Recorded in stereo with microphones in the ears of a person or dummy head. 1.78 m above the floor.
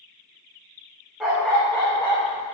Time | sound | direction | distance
1.2 | a dog barking | 5° right (ahead or behind) | 1.5 m